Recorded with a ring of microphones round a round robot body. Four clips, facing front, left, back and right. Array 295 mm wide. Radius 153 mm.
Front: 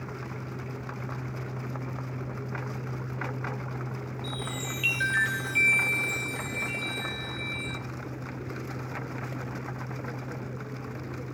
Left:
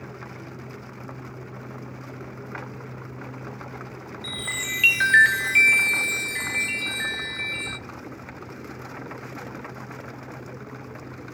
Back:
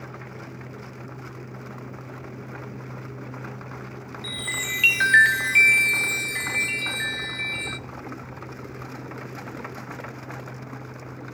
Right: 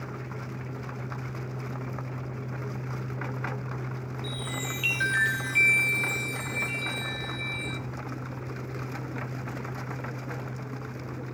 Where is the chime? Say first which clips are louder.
Left 1 dB, back 3 dB; 135° left, 0.7 m.